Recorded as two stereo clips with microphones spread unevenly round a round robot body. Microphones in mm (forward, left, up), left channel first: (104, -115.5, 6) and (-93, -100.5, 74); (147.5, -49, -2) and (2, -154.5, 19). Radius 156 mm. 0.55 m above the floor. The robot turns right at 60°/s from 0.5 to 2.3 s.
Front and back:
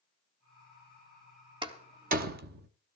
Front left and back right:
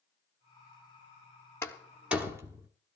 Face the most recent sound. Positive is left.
turn(degrees=135)